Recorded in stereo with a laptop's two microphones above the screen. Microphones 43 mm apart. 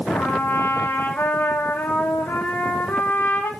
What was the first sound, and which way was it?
A trumpet, 65° left (ahead or behind).